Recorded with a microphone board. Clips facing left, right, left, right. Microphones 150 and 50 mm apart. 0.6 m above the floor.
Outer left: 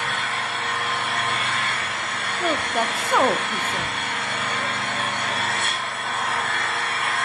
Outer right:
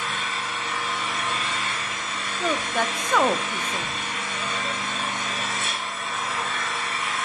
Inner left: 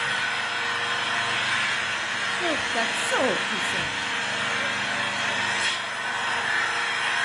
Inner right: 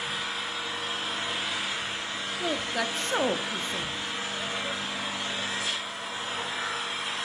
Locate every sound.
0.0 s an engine running: 65° left (ahead or behind), 3 m
2.4 s a woman speaking: 10° left (ahead or behind), 0.6 m